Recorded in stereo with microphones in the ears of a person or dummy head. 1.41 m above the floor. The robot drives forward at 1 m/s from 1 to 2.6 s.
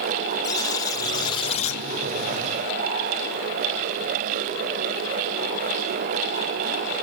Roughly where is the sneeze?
I don't hear a sneeze.